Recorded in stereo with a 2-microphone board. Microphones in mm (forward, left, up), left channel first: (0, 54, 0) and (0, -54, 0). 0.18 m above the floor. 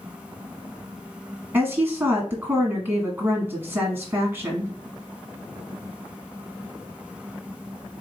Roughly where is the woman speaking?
Centre.